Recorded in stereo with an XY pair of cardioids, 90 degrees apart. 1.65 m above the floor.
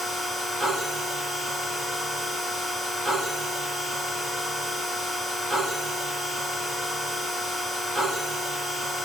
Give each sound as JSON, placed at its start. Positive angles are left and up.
{"t": 0.0, "sound": "a machine running", "azimuth_deg": -55, "distance_m": 1.5}